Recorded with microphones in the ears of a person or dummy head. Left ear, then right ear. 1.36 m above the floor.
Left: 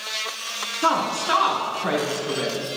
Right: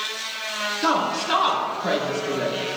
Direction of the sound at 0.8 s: 75° left (ahead or behind).